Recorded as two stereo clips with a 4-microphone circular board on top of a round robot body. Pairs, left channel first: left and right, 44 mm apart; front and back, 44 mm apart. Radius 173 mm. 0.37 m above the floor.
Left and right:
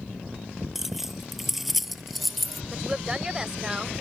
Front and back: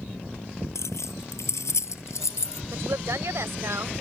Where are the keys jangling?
5° right; by 2.6 s straight ahead.